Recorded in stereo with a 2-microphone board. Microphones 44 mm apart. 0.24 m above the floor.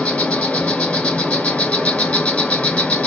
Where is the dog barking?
I don't hear a dog barking.